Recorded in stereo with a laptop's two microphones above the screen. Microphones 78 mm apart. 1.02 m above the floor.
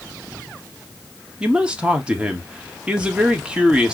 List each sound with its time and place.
1.4 s a man speaking: 15° right (ahead or behind), 1.5 m